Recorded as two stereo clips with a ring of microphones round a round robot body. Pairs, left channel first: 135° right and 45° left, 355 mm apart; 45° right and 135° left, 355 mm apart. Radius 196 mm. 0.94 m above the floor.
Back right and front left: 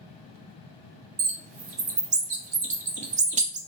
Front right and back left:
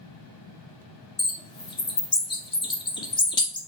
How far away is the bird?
About 0.5 m.